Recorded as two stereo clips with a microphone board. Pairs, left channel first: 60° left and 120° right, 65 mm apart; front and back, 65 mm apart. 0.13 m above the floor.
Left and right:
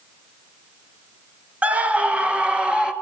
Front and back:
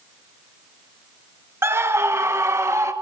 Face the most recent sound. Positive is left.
turn(degrees=170)